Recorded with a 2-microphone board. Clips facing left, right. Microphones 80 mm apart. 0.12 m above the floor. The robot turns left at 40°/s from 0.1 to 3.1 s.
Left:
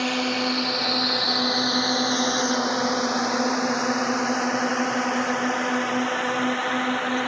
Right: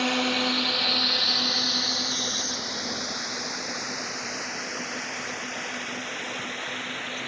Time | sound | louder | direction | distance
0.0 | a drone | left 1 dB | centre (ahead or behind) | ?